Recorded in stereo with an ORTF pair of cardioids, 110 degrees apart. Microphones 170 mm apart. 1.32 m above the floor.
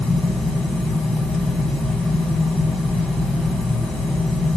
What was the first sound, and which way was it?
A fan, 5° left.